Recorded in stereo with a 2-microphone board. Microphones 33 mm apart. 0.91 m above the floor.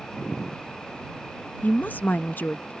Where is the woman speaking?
60° left (ahead or behind).